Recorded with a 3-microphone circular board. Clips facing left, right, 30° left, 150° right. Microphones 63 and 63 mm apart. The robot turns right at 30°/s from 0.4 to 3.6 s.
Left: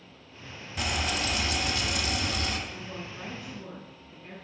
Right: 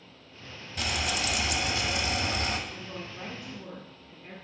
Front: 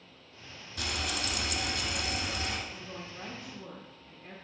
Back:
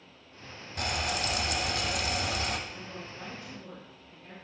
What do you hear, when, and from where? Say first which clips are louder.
0.8 s frying: left 1 dB, back 3 dB; 175° left, 0.9 m; by 2.6 s 130° right, 0.9 m
2.7 s a woman speaking: left 1 dB, back 1 dB; 50° right, 1.2 m; by 4.3 s 25° right, 1.2 m